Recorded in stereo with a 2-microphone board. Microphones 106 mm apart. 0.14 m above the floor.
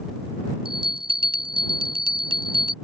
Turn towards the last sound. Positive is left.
turn(degrees=-55)  # may be behind; listen again after turning